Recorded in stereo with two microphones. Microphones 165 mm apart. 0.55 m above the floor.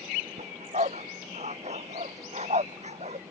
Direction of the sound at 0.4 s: 45° right (ahead or behind).